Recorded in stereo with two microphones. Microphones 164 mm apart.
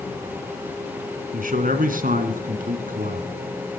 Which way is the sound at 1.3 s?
60° right (ahead or behind).